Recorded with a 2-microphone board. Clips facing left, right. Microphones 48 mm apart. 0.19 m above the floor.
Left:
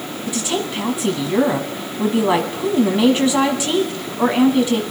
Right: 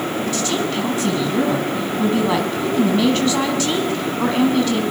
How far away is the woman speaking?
About 1.4 m.